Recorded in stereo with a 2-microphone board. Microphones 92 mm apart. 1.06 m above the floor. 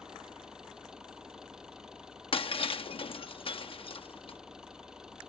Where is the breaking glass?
75° left (ahead or behind).